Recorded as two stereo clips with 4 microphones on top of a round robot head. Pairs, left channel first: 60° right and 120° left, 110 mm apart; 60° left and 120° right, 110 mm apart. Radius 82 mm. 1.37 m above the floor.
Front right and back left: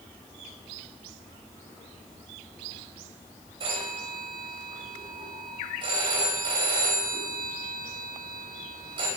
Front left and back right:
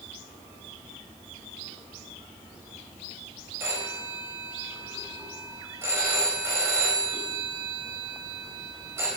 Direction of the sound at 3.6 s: 170° left.